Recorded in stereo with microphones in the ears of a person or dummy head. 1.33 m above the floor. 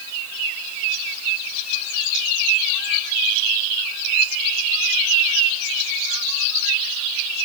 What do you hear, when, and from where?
Only background noise.